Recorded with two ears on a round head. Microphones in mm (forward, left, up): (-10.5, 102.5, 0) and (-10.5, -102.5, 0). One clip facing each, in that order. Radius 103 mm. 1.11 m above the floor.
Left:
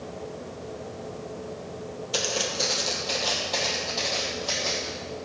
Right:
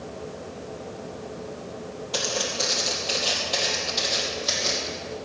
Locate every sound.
2.1 s footsteps: 10° left (ahead or behind), 2 m; by 4.9 s 30° right (ahead or behind), 3 m